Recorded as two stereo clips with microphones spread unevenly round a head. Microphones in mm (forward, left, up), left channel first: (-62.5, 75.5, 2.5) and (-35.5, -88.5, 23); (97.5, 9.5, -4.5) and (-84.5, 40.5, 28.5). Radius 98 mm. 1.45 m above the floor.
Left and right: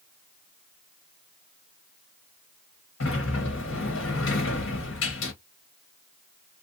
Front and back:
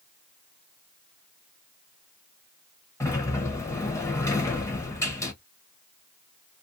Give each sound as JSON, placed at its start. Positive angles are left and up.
{"t": 3.0, "sound": "a sliding door", "azimuth_deg": 70, "distance_m": 1.1}